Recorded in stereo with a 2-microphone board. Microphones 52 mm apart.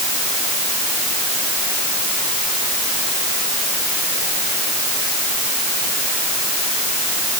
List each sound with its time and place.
Only background noise.